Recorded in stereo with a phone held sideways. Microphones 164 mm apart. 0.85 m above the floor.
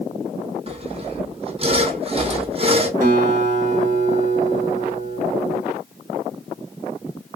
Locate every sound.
0.7 s sawing: 35° right (ahead or behind), 0.6 m
3.0 s a guitar: 50° right (ahead or behind), 1.1 m